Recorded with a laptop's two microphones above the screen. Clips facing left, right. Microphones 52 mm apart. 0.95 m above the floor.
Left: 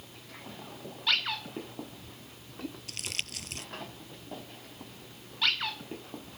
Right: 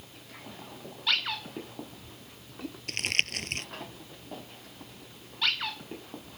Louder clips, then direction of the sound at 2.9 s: Right 9 dB; 55° right (ahead or behind).